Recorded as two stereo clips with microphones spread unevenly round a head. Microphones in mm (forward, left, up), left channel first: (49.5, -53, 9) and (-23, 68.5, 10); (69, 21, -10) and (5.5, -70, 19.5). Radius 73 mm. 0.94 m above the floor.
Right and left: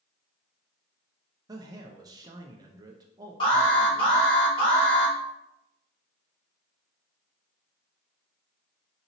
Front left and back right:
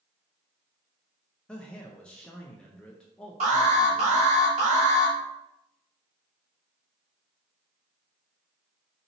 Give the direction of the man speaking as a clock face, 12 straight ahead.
9 o'clock.